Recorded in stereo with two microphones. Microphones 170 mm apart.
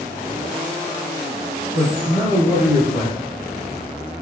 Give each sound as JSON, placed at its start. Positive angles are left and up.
{"t": 1.7, "sound": "a man speaking", "side_deg": -20, "distance_m": 1.2}